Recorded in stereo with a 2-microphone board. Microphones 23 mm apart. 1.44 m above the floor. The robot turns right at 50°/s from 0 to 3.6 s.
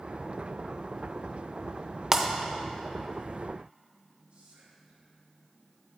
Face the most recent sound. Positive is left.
turn(degrees=-65)  # may be behind; listen again after turning